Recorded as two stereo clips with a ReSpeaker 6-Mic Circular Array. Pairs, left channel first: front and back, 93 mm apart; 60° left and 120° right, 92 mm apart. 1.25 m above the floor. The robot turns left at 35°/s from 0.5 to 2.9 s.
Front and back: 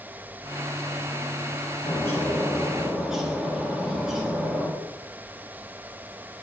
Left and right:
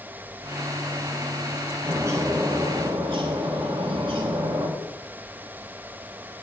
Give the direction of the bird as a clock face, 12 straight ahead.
2 o'clock.